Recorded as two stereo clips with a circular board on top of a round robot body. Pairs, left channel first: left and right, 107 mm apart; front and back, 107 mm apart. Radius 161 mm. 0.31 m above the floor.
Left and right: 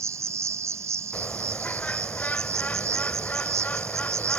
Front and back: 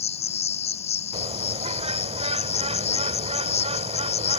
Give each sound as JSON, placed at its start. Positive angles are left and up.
{"t": 0.0, "sound": "an insect", "azimuth_deg": -25}
{"t": 1.1, "sound": "a bird", "azimuth_deg": 165}